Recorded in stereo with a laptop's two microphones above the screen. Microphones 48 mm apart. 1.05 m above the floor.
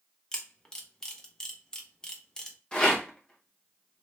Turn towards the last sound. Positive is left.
turn(degrees=20)  # may be behind; listen again after turning